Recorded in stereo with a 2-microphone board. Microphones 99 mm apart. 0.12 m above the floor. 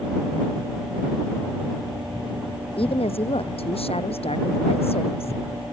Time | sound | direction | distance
2.8 | a woman speaking | 70° left (ahead or behind) | ?